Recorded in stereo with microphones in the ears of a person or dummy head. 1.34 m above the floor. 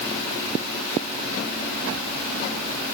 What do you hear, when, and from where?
Only background noise.